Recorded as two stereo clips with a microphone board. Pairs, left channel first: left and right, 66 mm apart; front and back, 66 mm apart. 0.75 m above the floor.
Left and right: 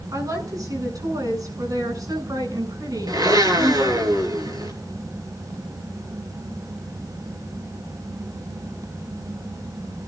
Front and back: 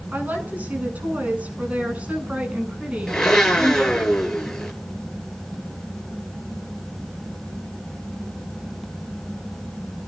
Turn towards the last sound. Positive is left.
turn(degrees=-80)